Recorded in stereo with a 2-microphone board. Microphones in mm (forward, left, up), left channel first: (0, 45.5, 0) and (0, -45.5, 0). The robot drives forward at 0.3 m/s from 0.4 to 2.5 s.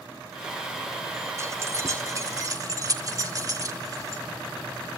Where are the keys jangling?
35° right (ahead or behind), 1.7 m; by 4.2 s 40° right (ahead or behind), 1.5 m.